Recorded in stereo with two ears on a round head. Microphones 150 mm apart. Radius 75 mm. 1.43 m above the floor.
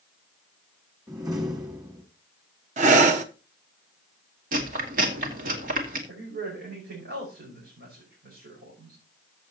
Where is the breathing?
50° right (ahead or behind), 1.0 m.